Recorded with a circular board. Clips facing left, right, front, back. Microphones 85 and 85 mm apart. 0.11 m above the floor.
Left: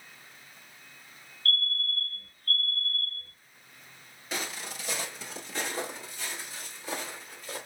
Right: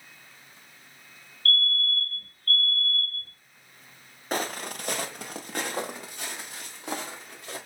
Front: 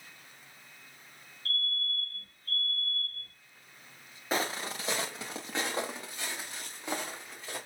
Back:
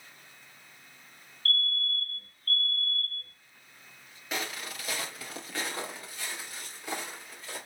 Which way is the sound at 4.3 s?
50° right.